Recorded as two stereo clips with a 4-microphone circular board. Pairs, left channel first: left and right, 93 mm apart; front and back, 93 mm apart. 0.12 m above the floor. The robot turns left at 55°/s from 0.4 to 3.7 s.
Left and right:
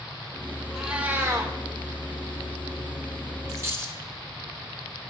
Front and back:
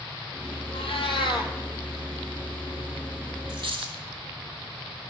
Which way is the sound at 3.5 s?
145° right.